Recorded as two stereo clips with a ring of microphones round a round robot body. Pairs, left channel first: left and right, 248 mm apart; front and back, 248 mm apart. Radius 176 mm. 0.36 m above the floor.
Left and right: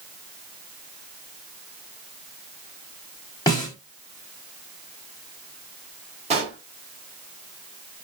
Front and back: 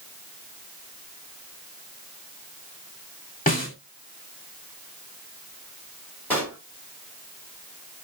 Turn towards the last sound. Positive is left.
turn(degrees=-75)